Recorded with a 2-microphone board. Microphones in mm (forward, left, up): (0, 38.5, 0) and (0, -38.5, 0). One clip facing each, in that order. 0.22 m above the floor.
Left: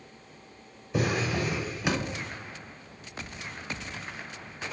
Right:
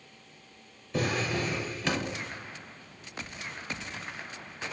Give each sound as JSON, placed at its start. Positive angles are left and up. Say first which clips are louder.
{"t": 0.9, "sound": "a drawer", "louder": "left 2 dB", "side_deg": 10, "distance_m": 0.6}